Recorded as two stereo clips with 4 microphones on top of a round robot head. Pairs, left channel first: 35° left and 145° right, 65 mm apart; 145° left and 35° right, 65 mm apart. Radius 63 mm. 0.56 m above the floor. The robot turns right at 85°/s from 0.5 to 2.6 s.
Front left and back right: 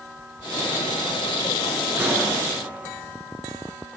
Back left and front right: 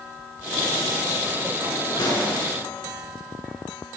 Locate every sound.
2.0 s a pop: 150° left, 9.5 m; by 2.3 s straight behind, 9.5 m